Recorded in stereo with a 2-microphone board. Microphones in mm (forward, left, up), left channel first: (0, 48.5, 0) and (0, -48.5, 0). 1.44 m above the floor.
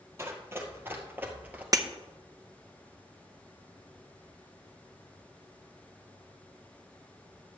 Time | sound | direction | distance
0.2 | running footsteps | 25° right (ahead or behind) | 2.5 m
1.7 | breaking glass | 35° right (ahead or behind) | 0.7 m